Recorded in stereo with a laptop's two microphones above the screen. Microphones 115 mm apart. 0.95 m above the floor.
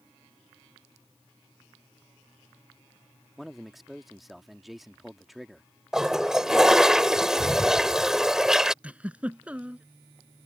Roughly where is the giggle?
Centre.